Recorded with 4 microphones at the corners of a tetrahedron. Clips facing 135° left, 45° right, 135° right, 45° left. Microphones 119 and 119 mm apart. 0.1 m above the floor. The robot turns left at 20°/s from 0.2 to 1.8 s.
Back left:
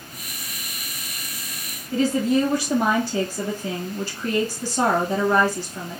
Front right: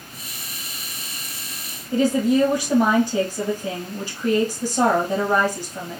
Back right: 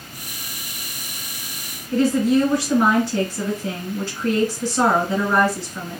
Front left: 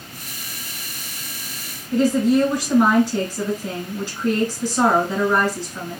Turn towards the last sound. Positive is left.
turn(degrees=-10)